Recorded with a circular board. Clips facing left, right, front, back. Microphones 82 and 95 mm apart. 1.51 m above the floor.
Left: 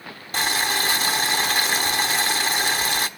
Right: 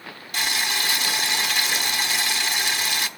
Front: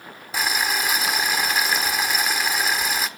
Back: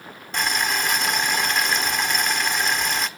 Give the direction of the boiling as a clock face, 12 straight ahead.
9 o'clock.